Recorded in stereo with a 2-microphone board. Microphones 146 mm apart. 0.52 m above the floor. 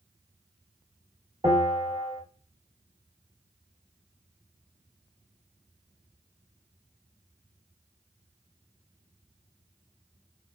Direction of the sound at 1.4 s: 25° right (ahead or behind).